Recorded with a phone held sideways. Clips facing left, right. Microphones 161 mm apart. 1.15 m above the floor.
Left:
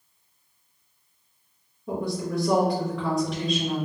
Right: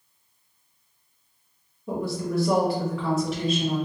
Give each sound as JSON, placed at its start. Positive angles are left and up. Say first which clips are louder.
{"t": 1.9, "sound": "a woman speaking", "louder": "right 1 dB", "side_deg": -5, "distance_m": 1.0}